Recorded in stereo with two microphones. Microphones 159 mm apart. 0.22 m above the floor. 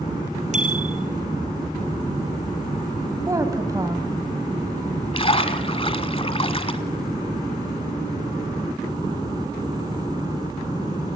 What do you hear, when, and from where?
0.5 s a bicycle bell: 50° right (ahead or behind), 4 m
3.3 s a woman speaking: 20° right (ahead or behind), 1.3 m
5.1 s a splash: 35° left (ahead or behind), 1.0 m